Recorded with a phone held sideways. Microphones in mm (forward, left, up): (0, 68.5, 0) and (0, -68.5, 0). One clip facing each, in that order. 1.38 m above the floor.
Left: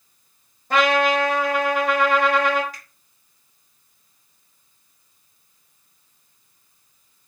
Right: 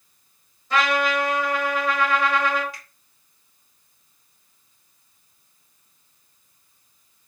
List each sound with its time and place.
0.7 s a trumpet: 50° left (ahead or behind), 1.5 m
2.7 s a finger snap: 45° left (ahead or behind), 3.5 m